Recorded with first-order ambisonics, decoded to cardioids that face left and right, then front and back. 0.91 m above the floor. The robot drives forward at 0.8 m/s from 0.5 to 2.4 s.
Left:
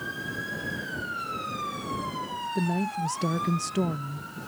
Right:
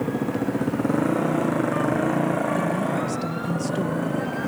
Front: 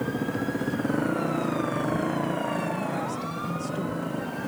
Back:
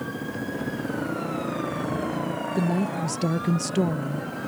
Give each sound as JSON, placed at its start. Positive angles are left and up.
{"t": 0.0, "sound": "a motorcycle", "azimuth_deg": -75}
{"t": 2.5, "sound": "a woman speaking", "azimuth_deg": 160}